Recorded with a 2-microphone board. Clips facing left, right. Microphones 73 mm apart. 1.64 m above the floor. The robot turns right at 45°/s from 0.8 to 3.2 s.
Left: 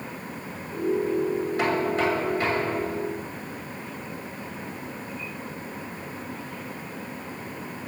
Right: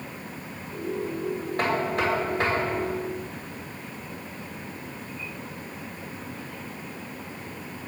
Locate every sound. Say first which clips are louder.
1.6 s knocking: even; 135° right, 6.5 m; by 3.0 s 70° right, 6.5 m